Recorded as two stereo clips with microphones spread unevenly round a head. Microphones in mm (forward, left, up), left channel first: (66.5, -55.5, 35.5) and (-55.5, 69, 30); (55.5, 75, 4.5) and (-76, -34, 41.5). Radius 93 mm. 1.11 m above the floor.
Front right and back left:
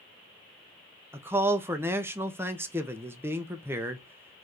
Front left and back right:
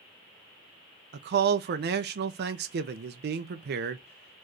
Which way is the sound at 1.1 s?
155° right.